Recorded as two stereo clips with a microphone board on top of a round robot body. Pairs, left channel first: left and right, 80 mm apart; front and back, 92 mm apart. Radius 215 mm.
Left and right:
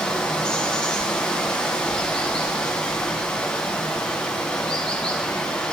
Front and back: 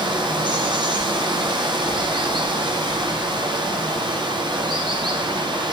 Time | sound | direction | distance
0.0 | running water | 165° left | 0.8 m